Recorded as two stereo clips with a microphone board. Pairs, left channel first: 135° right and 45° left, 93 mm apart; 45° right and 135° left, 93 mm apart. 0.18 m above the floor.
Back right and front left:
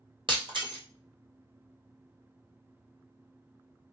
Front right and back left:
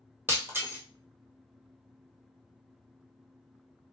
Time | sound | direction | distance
0.3 | breaking glass | 70° left | 1.4 m